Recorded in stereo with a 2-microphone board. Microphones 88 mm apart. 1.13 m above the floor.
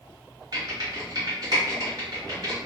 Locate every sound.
0.5 s typing on a keyboard: 50° right (ahead or behind), 1.5 m